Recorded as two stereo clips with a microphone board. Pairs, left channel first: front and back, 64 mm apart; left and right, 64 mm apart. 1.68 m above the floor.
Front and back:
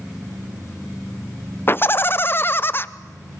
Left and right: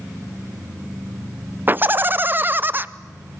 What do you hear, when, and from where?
1.7 s laughter: 45° right, 0.6 m